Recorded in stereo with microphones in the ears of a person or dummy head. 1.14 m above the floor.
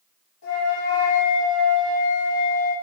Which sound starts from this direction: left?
A flute, at 0.4 s.